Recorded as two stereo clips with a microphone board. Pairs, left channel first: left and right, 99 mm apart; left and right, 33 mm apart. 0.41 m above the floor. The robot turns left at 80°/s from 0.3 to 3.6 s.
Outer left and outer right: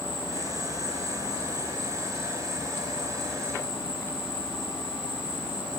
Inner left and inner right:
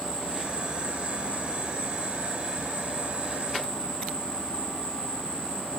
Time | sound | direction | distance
0.0 | an insect | 10° right | 2 m